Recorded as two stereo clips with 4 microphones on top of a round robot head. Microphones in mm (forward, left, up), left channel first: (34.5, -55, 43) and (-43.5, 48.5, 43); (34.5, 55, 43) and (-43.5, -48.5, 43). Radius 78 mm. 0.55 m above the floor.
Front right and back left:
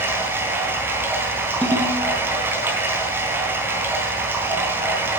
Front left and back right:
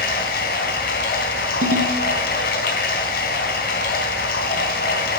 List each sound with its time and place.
0.0 s running water: 50° left, 3.5 m
1.6 s a ringtone: 135° right, 1.8 m